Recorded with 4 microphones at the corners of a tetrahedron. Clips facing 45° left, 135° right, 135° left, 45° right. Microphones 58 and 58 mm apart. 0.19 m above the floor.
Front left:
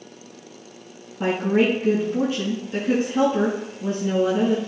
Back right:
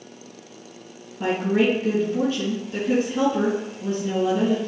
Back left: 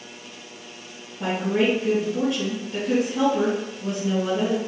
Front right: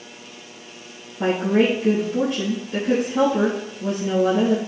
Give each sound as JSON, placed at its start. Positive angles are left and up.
{"t": 1.2, "sound": "a woman speaking", "azimuth_deg": -20, "distance_m": 2.5}